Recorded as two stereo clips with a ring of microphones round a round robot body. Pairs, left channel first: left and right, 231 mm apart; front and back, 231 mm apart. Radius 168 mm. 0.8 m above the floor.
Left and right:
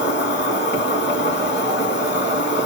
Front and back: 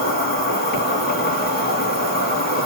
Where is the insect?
50° left, 3 m.